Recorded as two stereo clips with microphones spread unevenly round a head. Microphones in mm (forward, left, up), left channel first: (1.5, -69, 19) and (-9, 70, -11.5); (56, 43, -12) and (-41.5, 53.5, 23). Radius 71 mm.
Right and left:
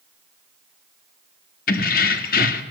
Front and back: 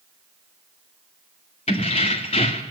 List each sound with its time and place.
1.7 s keys jangling: 60° right, 1.4 m